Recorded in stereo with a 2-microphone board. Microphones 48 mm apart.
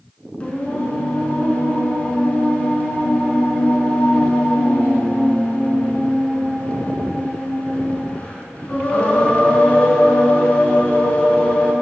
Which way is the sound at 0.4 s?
30° left (ahead or behind).